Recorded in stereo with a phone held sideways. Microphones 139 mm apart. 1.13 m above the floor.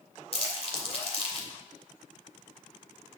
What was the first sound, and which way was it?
Crumpling, 45° left (ahead or behind).